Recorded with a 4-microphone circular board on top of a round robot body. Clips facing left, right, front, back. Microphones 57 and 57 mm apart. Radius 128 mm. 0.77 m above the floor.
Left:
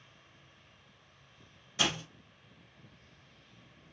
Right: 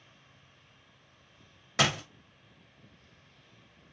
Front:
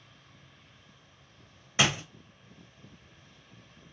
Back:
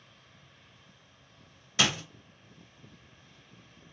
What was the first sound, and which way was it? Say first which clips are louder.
A door slam: right 5 dB, front 1 dB; 65° right.